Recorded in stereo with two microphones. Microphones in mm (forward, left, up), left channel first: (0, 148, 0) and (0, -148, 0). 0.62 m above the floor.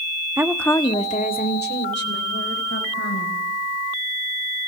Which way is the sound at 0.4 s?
10° right (ahead or behind).